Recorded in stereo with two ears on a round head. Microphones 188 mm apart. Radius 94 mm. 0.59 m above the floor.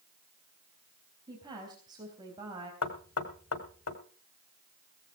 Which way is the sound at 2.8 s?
70° left (ahead or behind).